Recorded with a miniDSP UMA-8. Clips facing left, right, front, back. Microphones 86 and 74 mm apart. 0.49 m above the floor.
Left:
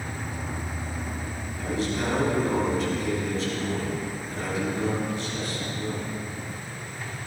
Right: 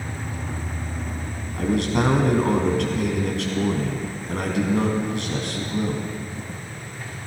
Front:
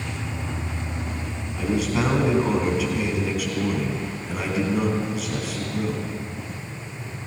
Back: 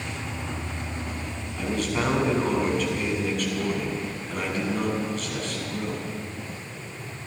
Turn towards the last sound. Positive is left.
turn(degrees=-85)